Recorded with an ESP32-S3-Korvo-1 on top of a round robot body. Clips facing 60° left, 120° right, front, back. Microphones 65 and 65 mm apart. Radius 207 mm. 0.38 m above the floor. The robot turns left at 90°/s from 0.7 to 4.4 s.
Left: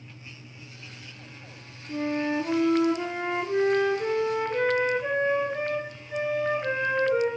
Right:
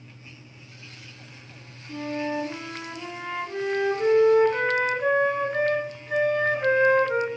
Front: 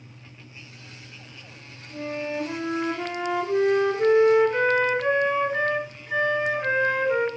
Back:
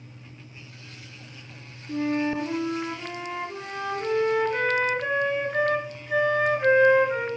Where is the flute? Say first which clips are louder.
Left 2 dB, back 5 dB; 140° left, 1.3 m; by 7.3 s 85° right, 1.3 m.